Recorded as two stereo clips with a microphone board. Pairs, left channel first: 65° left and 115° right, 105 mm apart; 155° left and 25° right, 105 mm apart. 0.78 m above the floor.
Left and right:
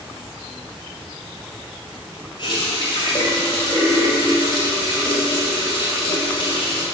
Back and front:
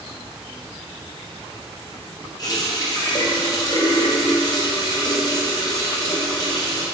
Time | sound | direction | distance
2.4 | a running tap | 105° left | 2.5 m